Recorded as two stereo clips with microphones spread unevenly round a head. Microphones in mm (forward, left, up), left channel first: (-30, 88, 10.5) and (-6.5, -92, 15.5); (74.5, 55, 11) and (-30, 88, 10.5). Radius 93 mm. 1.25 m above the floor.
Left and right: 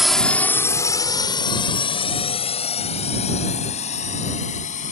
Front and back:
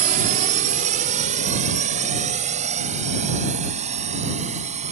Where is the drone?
170° right; by 4.9 s 150° left.